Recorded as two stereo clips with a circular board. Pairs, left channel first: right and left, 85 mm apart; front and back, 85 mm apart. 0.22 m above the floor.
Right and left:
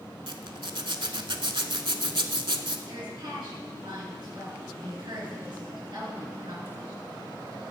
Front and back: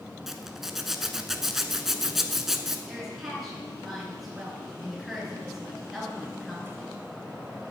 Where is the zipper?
95° left, 0.6 m.